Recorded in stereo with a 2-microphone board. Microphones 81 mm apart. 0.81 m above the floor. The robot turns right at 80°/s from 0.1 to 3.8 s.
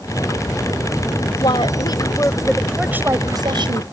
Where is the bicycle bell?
I don't hear a bicycle bell.